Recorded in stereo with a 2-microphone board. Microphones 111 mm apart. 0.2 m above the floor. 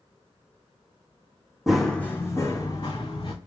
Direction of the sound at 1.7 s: 5° right (ahead or behind).